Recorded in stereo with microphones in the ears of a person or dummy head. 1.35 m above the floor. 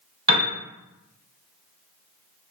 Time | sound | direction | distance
0.3 | a piano | 25° right (ahead or behind) | 0.8 m